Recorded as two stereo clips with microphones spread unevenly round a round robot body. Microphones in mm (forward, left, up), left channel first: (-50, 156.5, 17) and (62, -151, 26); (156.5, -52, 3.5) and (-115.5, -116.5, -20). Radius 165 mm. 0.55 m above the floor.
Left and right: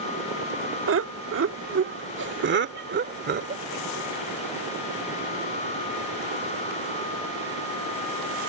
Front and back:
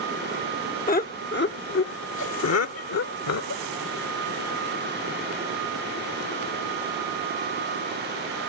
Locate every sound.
0.9 s laughter: 40° right; by 3.6 s 10° right